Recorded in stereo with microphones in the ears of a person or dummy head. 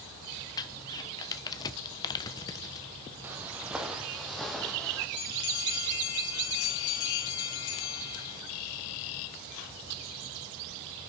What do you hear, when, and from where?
0.6 s crumpling: 25° left (ahead or behind), 1.1 m
3.2 s footsteps: 10° right (ahead or behind), 2 m; by 5.1 s 10° left (ahead or behind), 2.5 m
5.2 s a bell: 60° left (ahead or behind), 3.5 m